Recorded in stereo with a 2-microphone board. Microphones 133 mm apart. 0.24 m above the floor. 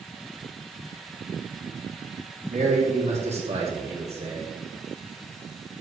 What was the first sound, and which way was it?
A man speaking, 55° right (ahead or behind).